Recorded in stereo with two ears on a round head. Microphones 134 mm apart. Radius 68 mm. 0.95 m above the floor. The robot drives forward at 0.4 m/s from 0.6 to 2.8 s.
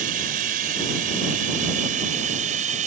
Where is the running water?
65° right (ahead or behind); by 2.9 s 55° right (ahead or behind).